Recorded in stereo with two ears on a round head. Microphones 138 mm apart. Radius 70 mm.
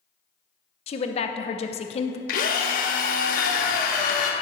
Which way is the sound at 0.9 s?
40° left (ahead or behind).